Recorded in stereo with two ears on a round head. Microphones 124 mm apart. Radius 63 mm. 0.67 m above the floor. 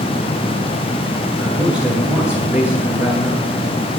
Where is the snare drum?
No snare drum in this recording.